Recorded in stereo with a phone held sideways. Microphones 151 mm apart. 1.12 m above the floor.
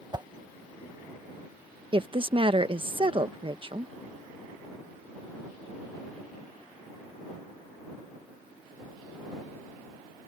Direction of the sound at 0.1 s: 30° right (ahead or behind).